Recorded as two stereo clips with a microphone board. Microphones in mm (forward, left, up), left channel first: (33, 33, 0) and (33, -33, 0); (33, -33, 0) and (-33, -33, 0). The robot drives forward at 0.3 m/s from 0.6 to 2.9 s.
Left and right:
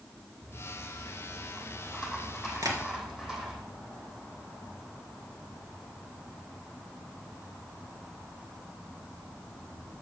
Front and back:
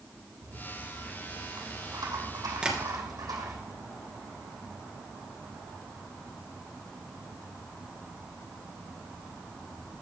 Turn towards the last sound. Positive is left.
turn(degrees=-105)